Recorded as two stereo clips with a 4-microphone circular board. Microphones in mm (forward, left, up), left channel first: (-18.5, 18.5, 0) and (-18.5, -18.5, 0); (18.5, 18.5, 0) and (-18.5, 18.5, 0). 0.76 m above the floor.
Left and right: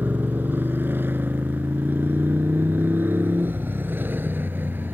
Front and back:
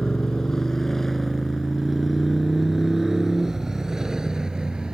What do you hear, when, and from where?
0.0 s a motorcycle: 70° right; by 5.0 s 110° right